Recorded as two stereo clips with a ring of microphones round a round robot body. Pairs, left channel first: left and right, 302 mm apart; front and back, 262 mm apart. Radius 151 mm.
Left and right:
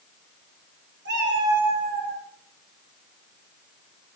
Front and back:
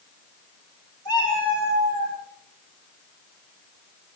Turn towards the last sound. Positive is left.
turn(degrees=-150)